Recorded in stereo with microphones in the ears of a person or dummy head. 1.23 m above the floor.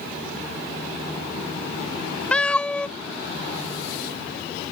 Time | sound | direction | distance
2.3 | a cat meowing | 5° left (ahead or behind) | ?